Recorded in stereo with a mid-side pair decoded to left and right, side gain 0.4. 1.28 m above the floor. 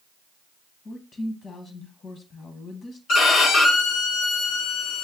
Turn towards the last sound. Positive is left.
turn(degrees=70)